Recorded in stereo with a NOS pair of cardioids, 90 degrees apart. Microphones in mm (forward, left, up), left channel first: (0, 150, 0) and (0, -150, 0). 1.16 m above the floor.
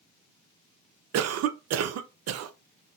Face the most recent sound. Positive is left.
turn(degrees=-60)